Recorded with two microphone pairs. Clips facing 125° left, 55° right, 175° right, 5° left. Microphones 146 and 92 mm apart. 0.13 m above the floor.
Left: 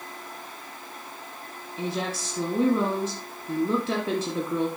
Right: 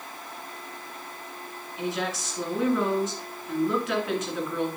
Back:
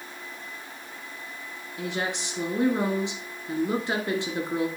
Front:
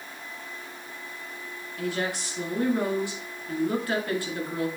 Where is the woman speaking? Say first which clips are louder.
Even, front 1 dB; 135° left, 1.8 m.